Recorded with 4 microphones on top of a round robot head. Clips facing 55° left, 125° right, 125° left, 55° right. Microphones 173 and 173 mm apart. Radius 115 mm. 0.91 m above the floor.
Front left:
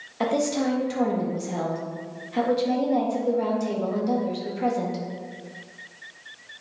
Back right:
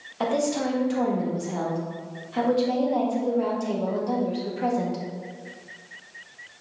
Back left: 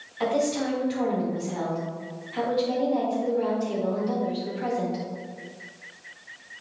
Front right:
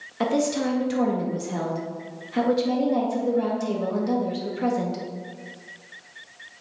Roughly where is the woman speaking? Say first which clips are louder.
Front left 1 dB, front right 2 dB; ahead right.